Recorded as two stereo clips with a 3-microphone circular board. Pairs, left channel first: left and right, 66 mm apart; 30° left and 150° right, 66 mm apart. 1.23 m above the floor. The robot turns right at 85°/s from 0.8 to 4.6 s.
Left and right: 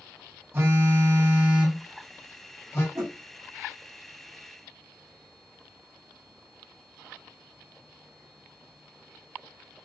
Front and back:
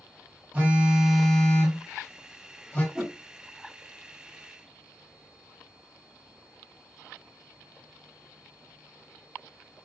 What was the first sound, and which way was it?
A phone buzzing, 90° right.